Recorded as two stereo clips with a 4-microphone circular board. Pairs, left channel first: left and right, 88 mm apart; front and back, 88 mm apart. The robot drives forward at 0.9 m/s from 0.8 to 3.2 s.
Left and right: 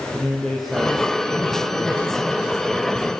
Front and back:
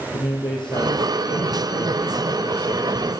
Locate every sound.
0.1 s a man speaking: straight ahead, 3.5 m; by 3.1 s 5° right, 1.8 m